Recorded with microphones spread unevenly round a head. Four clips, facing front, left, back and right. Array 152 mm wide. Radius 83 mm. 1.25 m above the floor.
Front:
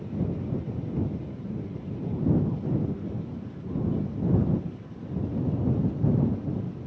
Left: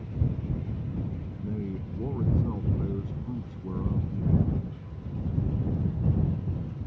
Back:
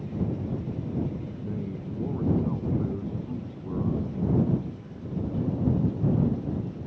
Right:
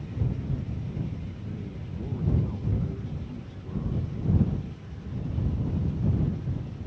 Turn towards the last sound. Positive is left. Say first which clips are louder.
# left 5 dB, back 1 dB
turn(degrees=150)